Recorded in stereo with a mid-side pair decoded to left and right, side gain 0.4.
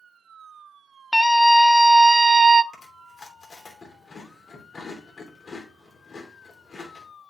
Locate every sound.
1.1 s a scream: 10° left, 1.3 m; by 2.6 s 35° right, 0.7 m
2.7 s chewing: 50° left, 3 m